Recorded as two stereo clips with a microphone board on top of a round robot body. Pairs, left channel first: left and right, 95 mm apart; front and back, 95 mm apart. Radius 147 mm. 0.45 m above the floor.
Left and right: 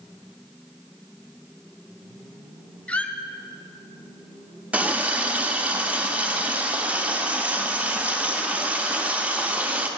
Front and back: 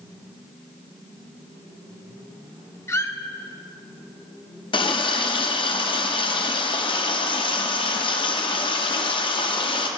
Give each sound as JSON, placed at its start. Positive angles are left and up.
{"t": 2.9, "sound": "a squeak", "azimuth_deg": 25, "distance_m": 0.7}
{"t": 4.7, "sound": "a running tap", "azimuth_deg": -15, "distance_m": 0.8}